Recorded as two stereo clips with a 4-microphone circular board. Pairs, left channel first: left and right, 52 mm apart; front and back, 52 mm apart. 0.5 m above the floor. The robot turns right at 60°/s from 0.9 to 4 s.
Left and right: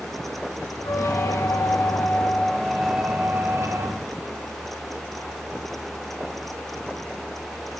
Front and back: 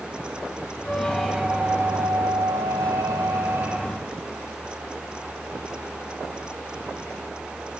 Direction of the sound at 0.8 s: 70° left.